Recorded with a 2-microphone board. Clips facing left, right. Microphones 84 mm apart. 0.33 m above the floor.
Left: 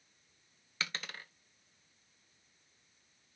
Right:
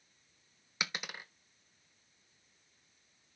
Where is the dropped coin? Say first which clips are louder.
Right 1 dB; 15° right (ahead or behind), 0.8 m.